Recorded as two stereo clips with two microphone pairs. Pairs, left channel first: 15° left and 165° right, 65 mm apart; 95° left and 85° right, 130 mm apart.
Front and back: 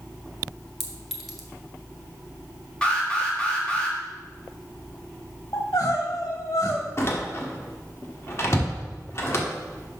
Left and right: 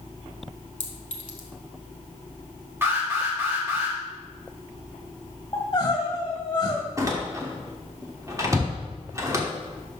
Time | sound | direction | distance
0.8 | a clink | 105° left | 1.1 m
2.8 | an alarm | 40° right | 1.5 m
5.5 | crying | 40° left | 1.4 m
7.0 | a door slam | 20° right | 1.1 m